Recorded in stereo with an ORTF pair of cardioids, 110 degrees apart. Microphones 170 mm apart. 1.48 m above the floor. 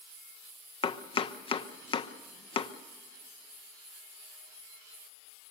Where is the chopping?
35° left, 1.1 m.